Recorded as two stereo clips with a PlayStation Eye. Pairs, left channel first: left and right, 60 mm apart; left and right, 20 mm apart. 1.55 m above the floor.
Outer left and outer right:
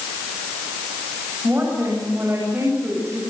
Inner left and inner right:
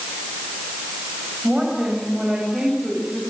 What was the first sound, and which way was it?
A woman speaking, 35° right (ahead or behind).